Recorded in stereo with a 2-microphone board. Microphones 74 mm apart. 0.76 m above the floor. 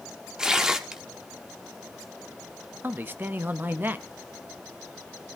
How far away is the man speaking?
About 0.7 m.